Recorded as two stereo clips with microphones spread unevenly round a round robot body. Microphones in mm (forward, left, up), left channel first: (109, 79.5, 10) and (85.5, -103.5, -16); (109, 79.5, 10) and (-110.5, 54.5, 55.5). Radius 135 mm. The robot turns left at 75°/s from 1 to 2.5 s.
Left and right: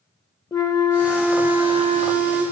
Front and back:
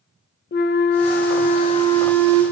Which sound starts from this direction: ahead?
A flute, at 0.5 s.